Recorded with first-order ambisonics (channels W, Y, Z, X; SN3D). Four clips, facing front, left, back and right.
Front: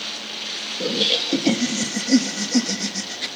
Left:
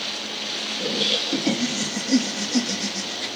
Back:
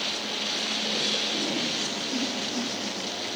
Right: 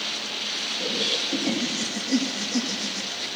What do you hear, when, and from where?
0.8 s laughter: 15° left, 2.0 m